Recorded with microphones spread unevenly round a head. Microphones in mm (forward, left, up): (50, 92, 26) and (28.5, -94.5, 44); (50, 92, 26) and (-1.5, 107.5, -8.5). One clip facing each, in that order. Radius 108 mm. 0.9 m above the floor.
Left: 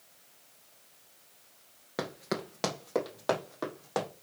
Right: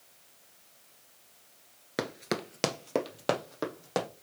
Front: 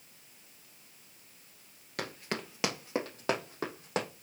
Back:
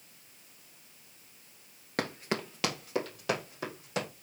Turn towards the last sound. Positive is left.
turn(degrees=-35)